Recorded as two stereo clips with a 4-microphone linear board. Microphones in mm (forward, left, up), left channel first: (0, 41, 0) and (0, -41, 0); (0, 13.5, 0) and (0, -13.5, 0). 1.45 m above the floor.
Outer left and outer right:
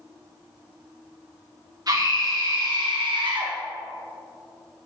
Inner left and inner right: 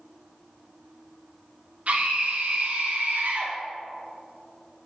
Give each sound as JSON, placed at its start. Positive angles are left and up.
{"t": 1.9, "sound": "a scream", "side_deg": -50, "distance_m": 2.5}